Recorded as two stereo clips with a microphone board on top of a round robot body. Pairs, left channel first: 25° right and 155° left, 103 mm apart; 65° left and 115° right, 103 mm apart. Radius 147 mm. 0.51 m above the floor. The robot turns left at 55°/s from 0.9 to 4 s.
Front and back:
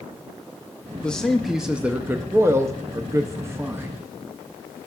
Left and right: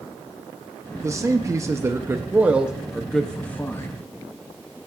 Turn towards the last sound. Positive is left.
turn(degrees=100)